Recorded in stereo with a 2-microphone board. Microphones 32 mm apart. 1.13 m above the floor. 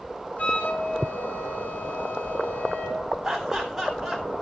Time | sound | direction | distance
0.4 | a flute | 55° left (ahead or behind) | 4 m
3.2 | laughter | 5° right (ahead or behind) | 8 m